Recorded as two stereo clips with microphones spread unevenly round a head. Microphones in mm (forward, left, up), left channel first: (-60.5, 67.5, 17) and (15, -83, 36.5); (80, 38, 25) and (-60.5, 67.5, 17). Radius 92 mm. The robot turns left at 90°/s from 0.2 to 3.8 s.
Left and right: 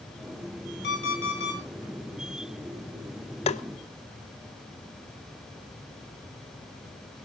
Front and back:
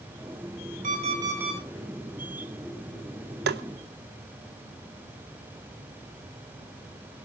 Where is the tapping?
175° left, 0.7 m; by 3.6 s 160° left, 0.7 m.